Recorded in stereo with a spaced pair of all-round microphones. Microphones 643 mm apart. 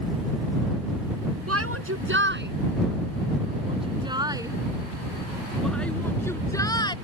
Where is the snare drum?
I don't hear a snare drum.